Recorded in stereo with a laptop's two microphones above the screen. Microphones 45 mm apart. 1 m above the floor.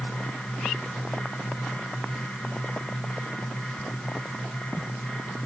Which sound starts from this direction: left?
A fan, at 0.0 s.